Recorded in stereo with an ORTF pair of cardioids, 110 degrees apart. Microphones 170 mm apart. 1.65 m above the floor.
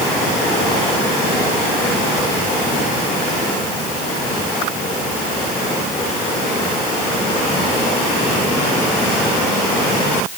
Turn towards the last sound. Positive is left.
No sound to turn to.